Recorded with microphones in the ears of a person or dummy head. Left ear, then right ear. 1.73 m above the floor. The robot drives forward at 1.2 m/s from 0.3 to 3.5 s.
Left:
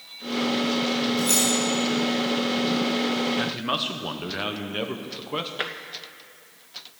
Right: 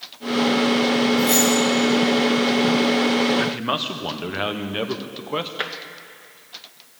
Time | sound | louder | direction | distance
1.2 | keys jangling | right 4 dB | 10° left (ahead or behind) | 5 m
3.4 | a man speaking | right 3 dB | 10° right (ahead or behind) | 0.7 m
5.6 | tapping | right 2 dB | centre (ahead or behind) | 0.5 m